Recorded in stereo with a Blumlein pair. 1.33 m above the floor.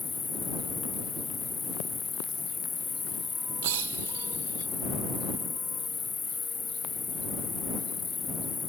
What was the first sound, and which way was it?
An insect, 15° left.